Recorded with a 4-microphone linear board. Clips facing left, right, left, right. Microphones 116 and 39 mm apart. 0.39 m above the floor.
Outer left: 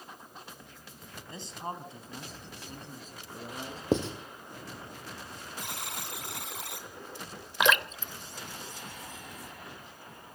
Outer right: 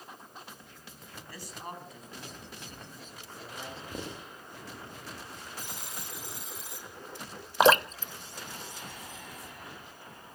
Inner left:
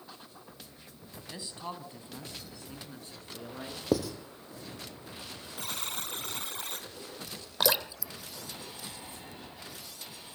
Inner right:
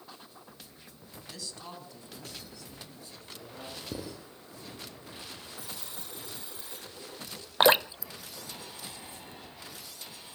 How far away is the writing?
About 3 m.